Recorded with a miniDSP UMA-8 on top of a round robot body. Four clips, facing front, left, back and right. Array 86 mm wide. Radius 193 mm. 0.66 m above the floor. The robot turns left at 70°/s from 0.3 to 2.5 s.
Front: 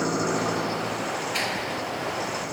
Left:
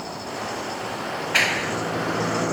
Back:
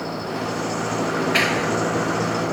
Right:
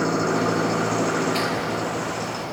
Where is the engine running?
75° right; by 2.5 s 135° left.